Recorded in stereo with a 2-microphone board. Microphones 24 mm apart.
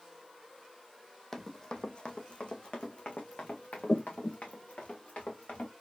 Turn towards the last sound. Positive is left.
turn(degrees=75)  # may be behind; listen again after turning